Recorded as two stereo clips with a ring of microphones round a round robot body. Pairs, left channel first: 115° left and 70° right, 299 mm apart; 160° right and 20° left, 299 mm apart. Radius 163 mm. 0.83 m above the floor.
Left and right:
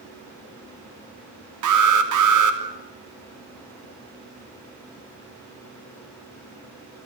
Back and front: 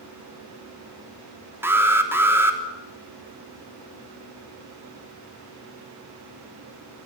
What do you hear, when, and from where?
1.6 s an alarm: 60° right, 3 m